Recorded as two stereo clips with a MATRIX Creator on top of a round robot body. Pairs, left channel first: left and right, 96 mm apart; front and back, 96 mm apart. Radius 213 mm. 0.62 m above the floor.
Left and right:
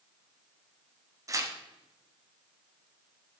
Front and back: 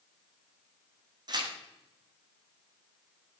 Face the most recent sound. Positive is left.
turn(degrees=-140)